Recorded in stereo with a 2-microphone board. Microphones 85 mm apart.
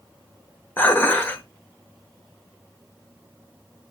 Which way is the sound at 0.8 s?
25° left (ahead or behind).